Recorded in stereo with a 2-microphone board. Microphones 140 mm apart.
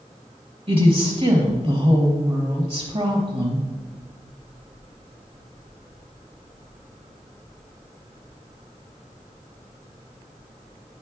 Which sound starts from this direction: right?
A woman speaking, at 0.7 s.